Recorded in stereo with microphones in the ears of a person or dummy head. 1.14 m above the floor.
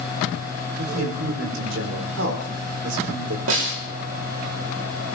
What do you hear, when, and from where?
0.8 s a man speaking: 70° right (ahead or behind), 4.5 m
3.5 s a snare drum: 70° right (ahead or behind), 3 m